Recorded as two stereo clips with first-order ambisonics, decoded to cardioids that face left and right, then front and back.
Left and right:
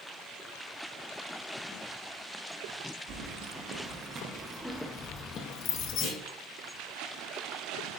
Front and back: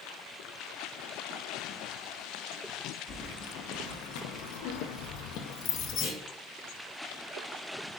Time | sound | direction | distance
3.1 | keys jangling | 55° right | 1.2 m
6.0 | a clunk | 40° left | 3 m